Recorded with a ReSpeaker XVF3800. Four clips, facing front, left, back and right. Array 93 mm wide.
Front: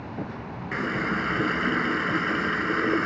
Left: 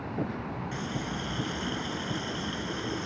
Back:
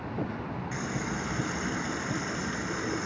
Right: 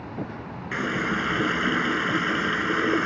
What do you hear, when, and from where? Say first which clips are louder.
0.7 s a running tap: right 13 dB, front 9 dB; 50° right